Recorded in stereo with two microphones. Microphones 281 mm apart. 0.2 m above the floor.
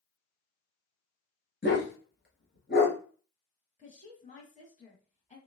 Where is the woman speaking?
25° left (ahead or behind), 1.2 m.